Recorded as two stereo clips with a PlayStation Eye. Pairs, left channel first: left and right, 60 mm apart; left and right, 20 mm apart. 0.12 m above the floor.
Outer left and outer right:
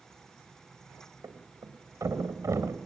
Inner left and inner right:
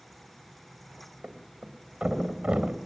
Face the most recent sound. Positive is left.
turn(degrees=-70)  # may be behind; listen again after turning